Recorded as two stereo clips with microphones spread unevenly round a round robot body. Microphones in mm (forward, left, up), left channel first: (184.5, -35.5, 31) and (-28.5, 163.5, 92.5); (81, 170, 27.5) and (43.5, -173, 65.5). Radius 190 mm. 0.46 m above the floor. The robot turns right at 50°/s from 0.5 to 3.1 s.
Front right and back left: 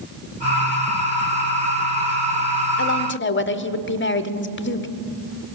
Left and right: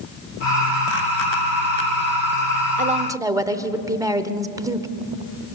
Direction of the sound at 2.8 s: 30° right.